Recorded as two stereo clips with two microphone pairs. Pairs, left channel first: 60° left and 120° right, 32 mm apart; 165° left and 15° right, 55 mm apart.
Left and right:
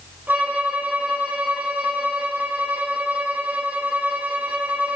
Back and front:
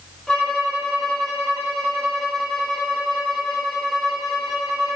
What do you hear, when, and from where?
0.3 s a violin: 115° right, 8 m